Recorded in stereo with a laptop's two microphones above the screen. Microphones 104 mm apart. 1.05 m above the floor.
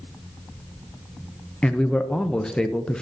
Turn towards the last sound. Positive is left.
turn(degrees=10)  # may be behind; listen again after turning